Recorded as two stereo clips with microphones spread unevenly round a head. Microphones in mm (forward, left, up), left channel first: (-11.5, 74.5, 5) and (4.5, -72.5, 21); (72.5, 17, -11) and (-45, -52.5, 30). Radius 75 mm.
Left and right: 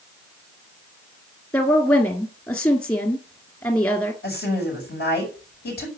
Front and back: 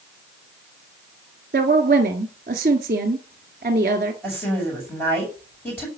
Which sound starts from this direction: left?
A woman speaking, at 4.2 s.